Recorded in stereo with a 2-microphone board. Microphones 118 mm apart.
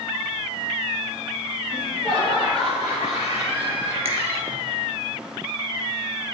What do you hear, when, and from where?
1.7 s laughter: 5° right (ahead or behind), 2.5 m; by 4.6 s 30° right (ahead or behind), 3.5 m
4.0 s a finger snap: 60° right (ahead or behind), 2 m